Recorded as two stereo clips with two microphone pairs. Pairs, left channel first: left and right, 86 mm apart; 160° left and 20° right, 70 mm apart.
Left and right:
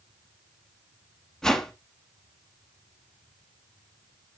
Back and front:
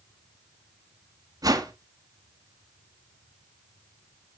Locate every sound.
1.4 s a whoosh: 5° left, 1.8 m